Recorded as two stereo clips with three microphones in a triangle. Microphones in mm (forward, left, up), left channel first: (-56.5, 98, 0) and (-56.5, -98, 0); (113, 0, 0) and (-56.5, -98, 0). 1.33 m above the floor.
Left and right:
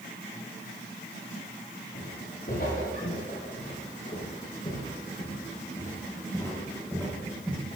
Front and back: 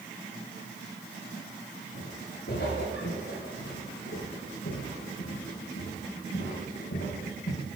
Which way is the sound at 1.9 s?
55° left.